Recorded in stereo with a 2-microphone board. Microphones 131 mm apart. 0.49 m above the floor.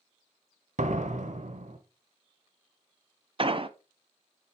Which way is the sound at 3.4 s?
45° right (ahead or behind).